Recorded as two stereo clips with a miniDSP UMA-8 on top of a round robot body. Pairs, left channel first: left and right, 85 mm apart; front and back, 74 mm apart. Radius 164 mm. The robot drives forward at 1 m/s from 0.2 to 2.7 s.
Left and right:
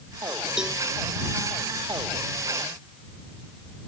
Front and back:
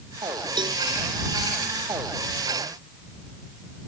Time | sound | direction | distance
0.6 | a cowbell | 170° right | ?